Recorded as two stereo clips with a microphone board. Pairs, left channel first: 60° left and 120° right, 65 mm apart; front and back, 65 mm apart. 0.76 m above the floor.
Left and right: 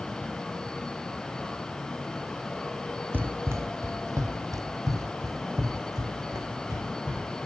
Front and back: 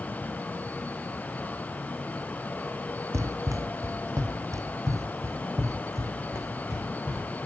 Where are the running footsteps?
170° right, 1.0 m; by 7.2 s 140° right, 4.5 m.